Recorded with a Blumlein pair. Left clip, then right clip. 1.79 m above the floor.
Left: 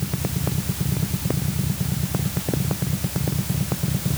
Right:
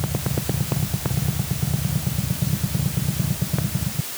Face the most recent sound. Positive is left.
No sound to turn to.